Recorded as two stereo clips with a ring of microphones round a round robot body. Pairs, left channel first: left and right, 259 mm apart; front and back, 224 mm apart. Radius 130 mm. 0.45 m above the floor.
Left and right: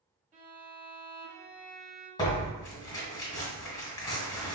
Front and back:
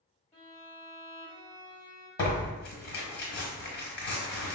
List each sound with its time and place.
0.3 s a violin: 45° right, 0.7 m
2.2 s tearing paper: 15° left, 1.1 m